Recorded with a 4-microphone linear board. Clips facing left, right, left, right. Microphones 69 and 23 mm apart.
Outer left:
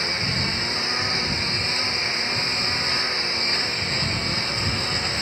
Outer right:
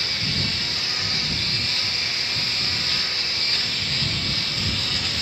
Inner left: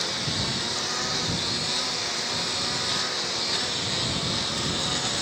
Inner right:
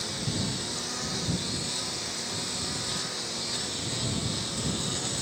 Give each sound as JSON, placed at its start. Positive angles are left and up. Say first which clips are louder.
{"t": 0.0, "sound": "a lawn mower", "louder": "outer left 2 dB, inner left 5 dB", "side_deg": 25}